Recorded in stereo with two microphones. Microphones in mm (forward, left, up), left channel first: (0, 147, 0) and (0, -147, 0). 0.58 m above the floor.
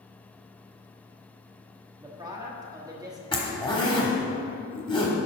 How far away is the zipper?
About 1.1 m.